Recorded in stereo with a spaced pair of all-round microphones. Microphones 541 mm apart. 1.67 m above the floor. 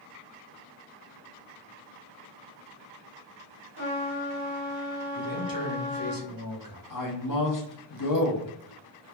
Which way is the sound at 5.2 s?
40° left (ahead or behind).